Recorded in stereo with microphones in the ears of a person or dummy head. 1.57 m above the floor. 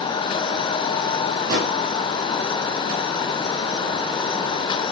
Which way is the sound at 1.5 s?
60° right (ahead or behind).